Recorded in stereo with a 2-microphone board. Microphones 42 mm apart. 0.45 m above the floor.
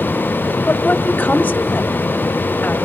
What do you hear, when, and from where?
0.7 s a woman speaking: 50° left (ahead or behind), 1.9 m